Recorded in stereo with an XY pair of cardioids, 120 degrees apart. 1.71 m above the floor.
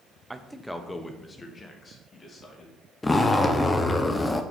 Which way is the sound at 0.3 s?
15° right.